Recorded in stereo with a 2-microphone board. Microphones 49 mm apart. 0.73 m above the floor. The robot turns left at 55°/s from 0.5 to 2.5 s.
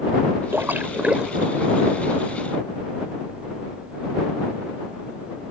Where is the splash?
55° right (ahead or behind); by 1.5 s 5° right (ahead or behind).